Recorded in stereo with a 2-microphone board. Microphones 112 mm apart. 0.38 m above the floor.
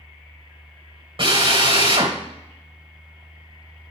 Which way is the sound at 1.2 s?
50° right (ahead or behind).